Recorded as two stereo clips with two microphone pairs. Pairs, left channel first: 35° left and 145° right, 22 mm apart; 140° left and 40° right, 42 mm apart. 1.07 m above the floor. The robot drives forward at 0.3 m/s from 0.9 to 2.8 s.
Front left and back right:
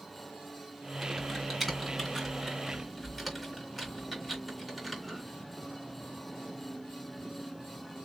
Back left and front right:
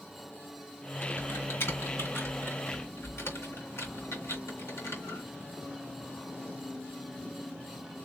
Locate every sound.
1.0 s typing on a keyboard: 125° left, 2.5 m; by 5.2 s 135° left, 3 m